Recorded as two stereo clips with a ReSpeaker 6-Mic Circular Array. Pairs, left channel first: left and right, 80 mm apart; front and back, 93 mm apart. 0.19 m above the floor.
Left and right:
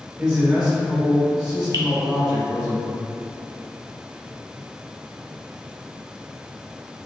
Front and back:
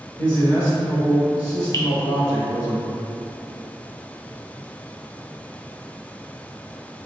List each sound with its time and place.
0.2 s a man speaking: 15° right, 1.4 m
1.7 s dripping: 50° right, 0.5 m